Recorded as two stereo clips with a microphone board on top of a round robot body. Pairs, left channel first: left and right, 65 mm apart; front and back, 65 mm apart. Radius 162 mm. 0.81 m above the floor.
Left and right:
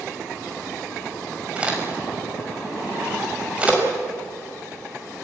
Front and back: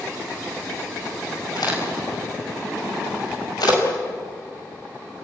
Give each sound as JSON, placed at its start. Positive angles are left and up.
{"t": 1.6, "sound": "a crack", "azimuth_deg": -15, "distance_m": 5.0}